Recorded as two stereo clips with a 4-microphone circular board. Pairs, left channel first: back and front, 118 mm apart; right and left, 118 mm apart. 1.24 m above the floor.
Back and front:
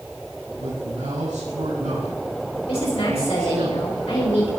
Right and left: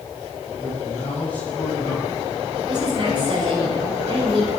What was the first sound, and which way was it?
A man speaking, 15° right.